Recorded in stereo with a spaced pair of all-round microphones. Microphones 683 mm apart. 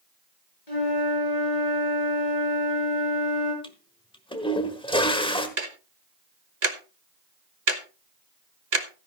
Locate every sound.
0.7 s a flute: 75° left (ahead or behind), 5.5 m
3.6 s a toilet flushing: 10° left (ahead or behind), 1.4 m
5.6 s ticking: 85° right, 1.3 m